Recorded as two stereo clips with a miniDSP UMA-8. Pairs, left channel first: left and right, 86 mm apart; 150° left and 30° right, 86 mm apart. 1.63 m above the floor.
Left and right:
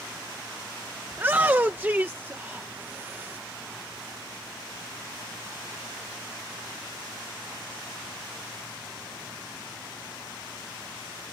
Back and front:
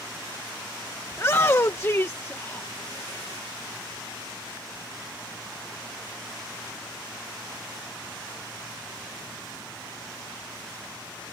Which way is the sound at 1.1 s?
155° right.